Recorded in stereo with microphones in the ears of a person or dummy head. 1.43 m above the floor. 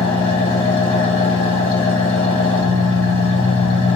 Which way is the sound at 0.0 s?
30° left (ahead or behind).